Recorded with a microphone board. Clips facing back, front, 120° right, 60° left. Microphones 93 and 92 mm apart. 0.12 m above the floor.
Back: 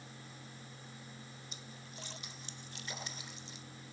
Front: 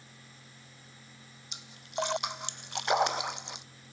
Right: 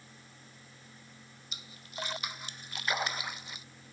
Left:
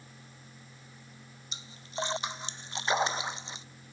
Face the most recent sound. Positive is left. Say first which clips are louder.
# front 13 dB, left 7 dB
turn(degrees=0)